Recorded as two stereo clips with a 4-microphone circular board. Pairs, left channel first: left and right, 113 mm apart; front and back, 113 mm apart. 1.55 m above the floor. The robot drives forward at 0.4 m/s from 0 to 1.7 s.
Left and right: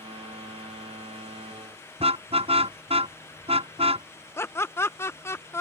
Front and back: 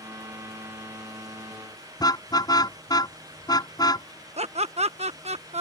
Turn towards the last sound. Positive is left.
turn(degrees=160)